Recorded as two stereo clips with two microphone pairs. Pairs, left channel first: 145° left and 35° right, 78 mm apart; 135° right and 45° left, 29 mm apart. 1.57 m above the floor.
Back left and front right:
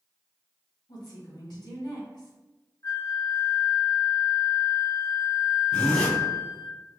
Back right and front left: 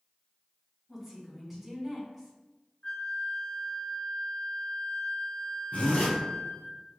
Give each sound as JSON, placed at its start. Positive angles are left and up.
{"t": 0.9, "sound": "a woman speaking", "azimuth_deg": 130, "distance_m": 1.6}
{"t": 2.8, "sound": "a flute", "azimuth_deg": -175, "distance_m": 0.6}
{"t": 5.7, "sound": "a zipper", "azimuth_deg": -140, "distance_m": 1.0}